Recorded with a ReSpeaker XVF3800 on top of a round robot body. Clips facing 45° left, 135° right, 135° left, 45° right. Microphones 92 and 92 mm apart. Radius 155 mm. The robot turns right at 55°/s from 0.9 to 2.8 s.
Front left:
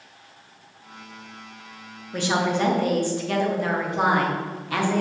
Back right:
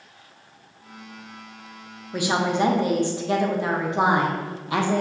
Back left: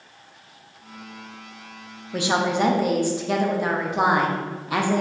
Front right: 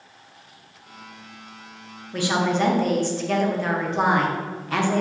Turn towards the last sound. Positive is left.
turn(degrees=-160)